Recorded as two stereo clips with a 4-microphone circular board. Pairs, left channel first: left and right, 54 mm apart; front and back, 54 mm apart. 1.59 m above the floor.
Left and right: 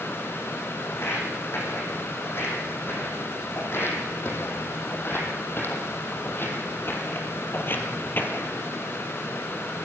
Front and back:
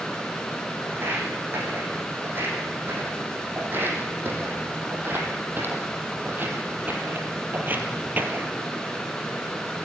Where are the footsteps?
130° left, 6 m.